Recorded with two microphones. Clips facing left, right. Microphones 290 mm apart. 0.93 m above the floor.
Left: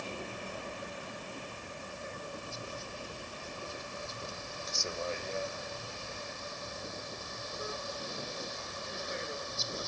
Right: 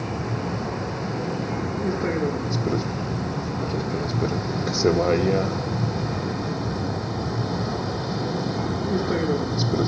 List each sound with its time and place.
0.0 s a vehicle: 70° right (ahead or behind); by 9.9 s 85° right